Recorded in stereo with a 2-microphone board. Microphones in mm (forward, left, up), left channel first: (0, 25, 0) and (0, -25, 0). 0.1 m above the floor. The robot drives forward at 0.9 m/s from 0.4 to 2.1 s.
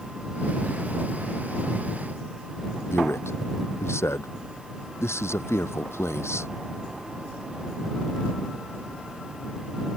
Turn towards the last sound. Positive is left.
turn(degrees=60)  # may be behind; listen again after turning